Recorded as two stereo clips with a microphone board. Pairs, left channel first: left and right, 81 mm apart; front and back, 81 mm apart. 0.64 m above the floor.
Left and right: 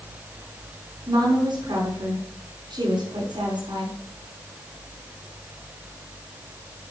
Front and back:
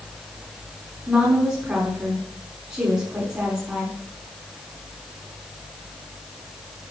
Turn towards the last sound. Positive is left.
turn(degrees=-115)